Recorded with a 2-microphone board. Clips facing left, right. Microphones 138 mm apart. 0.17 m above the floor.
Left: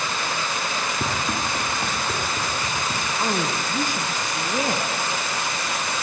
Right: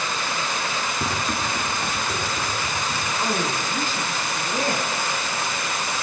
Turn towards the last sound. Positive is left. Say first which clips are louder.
# left 1 dB
turn(degrees=15)  # may be behind; listen again after turning